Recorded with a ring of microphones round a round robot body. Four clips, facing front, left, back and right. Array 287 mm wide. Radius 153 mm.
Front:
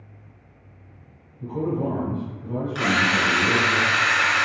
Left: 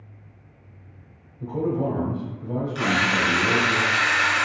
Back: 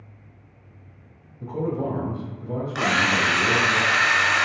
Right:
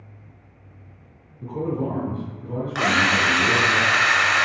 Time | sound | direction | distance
1.4 | a man speaking | 135° left | 1.8 m
2.8 | a drill | 110° right | 0.8 m